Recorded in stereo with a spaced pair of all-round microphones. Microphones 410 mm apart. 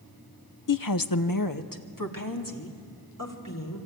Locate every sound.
0.7 s a woman speaking: 55° left (ahead or behind), 0.5 m